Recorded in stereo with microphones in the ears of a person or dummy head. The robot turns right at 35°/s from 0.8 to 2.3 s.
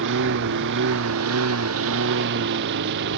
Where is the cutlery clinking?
I don't hear cutlery clinking.